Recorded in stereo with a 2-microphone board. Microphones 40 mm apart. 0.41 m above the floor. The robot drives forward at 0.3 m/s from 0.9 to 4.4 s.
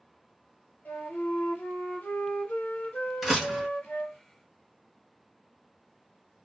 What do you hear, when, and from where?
0.8 s a flute: 50° left (ahead or behind), 1.3 m; by 4.2 s 45° left (ahead or behind), 1.4 m
3.2 s a door slam: 5° right (ahead or behind), 1.1 m